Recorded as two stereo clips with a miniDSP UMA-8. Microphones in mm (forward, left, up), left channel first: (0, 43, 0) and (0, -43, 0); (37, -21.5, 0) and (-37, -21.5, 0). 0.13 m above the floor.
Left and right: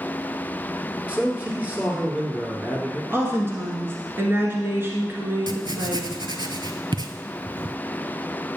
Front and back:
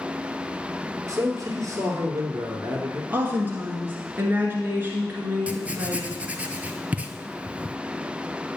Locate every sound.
1.1 s a man speaking: 160° right, 2 m
3.1 s a woman speaking: 135° right, 1.4 m
5.5 s writing: 110° right, 0.6 m